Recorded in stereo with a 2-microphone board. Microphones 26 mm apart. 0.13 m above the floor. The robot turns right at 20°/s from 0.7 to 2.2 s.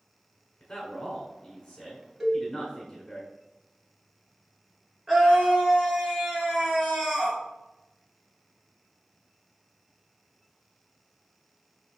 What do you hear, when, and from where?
0.6 s a man speaking: 150° left, 1.4 m; by 3.2 s straight behind, 1.4 m
2.2 s a cowbell: 15° right (ahead or behind), 1.9 m
5.1 s a scream: 20° right (ahead or behind), 1.9 m